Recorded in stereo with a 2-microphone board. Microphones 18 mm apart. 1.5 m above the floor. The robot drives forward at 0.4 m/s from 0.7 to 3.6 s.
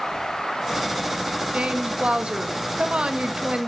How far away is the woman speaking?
About 2.0 m.